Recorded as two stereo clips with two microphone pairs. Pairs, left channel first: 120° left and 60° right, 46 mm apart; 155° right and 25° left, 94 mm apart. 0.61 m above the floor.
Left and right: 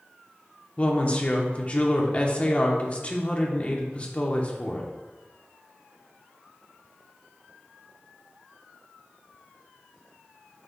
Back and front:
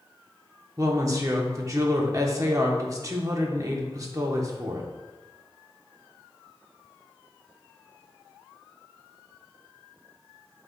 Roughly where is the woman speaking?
Left.